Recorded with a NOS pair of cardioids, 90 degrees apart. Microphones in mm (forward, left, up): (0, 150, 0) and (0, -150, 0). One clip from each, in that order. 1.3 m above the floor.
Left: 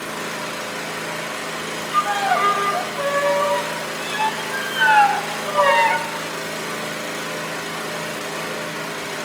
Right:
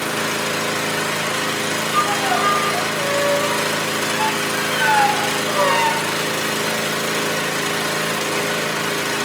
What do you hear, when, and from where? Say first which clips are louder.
0.0 s an engine running: right 6 dB; 55° right, 0.9 m
1.9 s a violin: left 1 dB; 10° left, 0.5 m